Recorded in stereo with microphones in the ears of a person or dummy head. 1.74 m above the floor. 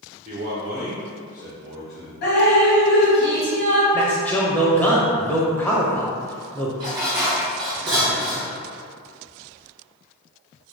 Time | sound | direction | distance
0.2 | a man speaking | 25° right (ahead or behind) | 0.7 m
2.2 | dripping | 55° left (ahead or behind) | 1.4 m
3.9 | a man speaking | 10° left (ahead or behind) | 0.7 m
6.8 | dishes clattering | 20° right (ahead or behind) | 1.0 m